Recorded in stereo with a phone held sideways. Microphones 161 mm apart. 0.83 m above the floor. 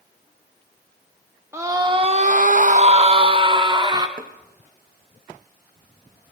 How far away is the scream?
About 1.0 m.